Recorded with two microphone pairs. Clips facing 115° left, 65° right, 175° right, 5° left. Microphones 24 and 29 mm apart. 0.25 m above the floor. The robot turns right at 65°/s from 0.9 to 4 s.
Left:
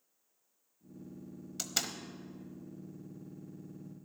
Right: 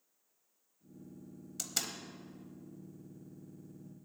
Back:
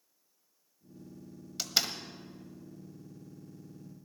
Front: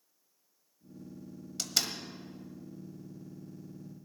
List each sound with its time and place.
1.6 s a door slam: 140° left, 0.9 m; by 1.9 s 165° left, 0.9 m